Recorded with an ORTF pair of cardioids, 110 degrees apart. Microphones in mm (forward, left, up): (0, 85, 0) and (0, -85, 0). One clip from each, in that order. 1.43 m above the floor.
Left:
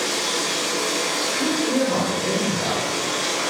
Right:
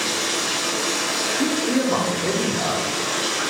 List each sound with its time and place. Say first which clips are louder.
0.0 s running water: even; 10° right, 1.2 m
1.4 s a man speaking: even; 25° right, 0.9 m